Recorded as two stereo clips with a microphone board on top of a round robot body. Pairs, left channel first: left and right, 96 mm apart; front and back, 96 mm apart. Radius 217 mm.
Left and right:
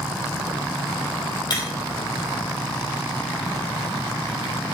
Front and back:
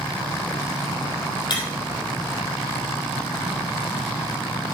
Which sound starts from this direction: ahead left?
Breaking glass, at 1.5 s.